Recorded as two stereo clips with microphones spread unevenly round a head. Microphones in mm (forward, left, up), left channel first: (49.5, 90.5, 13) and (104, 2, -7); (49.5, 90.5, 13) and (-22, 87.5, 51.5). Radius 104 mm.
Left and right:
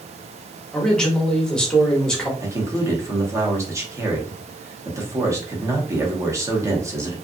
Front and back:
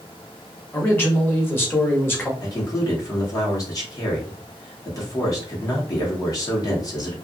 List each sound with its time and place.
0.7 s a man speaking: 35° left, 1.2 m
2.4 s a man speaking: straight ahead, 1.1 m